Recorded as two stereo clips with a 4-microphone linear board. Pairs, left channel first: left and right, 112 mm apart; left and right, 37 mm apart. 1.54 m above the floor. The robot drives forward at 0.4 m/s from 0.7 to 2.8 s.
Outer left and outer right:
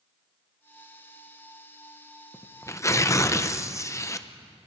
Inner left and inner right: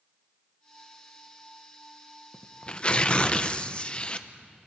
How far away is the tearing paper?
About 0.8 m.